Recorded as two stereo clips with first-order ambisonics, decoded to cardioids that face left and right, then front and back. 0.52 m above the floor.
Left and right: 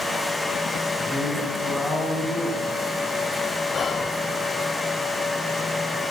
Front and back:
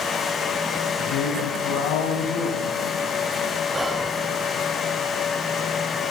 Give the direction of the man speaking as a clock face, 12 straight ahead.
12 o'clock.